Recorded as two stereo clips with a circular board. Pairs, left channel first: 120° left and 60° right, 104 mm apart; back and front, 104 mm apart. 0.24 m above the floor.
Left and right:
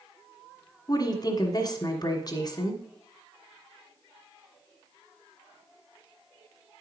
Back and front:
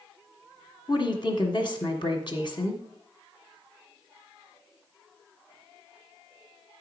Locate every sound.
0.9 s a woman speaking: 160° left, 1.6 m